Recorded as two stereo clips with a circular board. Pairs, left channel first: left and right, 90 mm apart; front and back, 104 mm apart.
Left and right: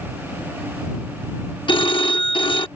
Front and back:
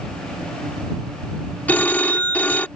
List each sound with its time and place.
1.7 s a phone ringing: 75° left